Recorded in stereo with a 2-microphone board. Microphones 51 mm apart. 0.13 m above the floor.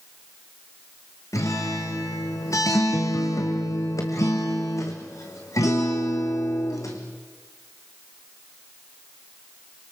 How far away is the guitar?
About 3 m.